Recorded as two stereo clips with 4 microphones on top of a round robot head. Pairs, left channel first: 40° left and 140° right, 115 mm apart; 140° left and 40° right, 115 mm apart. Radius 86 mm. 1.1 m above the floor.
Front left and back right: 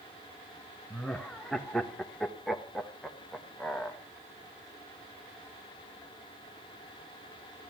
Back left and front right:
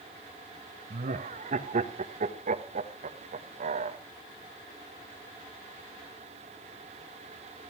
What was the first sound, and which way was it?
Laughter, 45° right.